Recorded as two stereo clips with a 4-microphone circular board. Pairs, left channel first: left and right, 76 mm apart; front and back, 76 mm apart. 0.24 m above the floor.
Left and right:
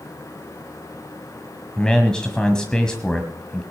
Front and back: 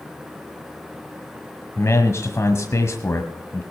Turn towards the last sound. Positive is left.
turn(degrees=15)